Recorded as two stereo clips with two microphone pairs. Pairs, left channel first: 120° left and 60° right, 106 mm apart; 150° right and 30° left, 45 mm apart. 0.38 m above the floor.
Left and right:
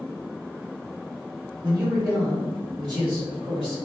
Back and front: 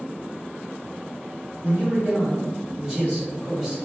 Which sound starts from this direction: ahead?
A man speaking, at 1.6 s.